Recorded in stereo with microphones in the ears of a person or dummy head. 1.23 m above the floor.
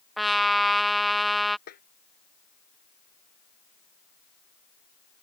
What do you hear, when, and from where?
0.2 s a trumpet: 5° left (ahead or behind)
1.7 s a snare drum: 50° left (ahead or behind)